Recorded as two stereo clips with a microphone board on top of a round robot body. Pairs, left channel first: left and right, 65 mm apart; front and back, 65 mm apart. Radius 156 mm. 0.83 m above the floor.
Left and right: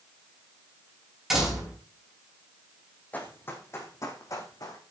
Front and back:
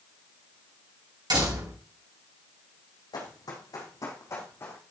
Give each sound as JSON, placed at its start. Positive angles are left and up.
{"t": 1.3, "sound": "a door slam", "azimuth_deg": -175, "distance_m": 6.0}
{"t": 3.1, "sound": "running footsteps", "azimuth_deg": 25, "distance_m": 3.0}